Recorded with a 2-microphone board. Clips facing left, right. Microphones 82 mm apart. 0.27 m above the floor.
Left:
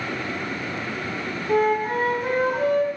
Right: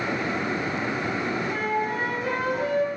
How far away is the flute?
About 1.3 m.